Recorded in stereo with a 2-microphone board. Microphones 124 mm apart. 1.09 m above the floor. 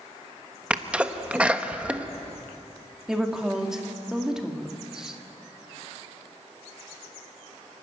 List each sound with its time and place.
0.7 s a sneeze: 10° right (ahead or behind), 1.1 m
3.1 s a woman speaking: 5° right (ahead or behind), 1.9 m